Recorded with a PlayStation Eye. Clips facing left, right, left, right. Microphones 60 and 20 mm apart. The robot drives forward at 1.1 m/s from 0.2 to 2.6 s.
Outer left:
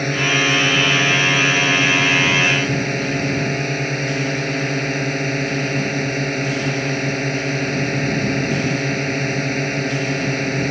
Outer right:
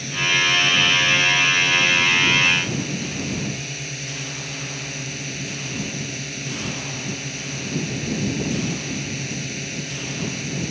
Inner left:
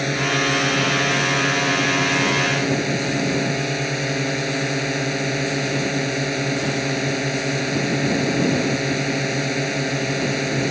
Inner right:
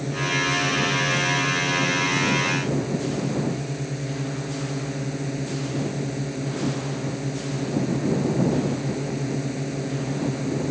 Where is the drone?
50° left (ahead or behind).